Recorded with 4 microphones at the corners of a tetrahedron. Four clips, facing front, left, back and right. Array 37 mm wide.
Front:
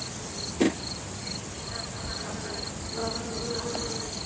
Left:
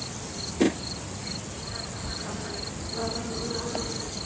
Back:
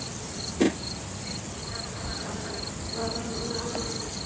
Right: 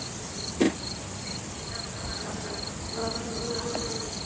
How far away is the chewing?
No chewing in this recording.